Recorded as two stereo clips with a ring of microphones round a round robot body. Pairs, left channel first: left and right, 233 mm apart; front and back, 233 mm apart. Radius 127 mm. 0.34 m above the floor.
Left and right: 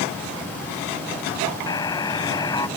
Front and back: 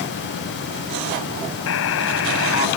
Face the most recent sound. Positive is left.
turn(degrees=15)